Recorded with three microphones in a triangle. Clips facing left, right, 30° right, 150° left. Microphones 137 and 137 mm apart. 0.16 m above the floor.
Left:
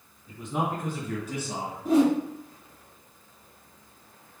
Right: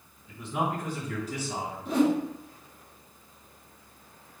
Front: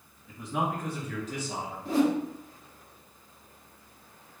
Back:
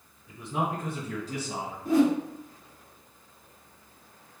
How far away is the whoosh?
About 2 m.